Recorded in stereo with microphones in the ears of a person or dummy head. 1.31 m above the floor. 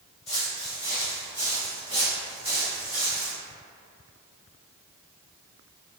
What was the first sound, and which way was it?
Footsteps, 15° left (ahead or behind).